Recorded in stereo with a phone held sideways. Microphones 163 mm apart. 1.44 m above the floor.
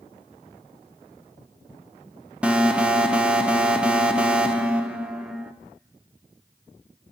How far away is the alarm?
About 0.6 m.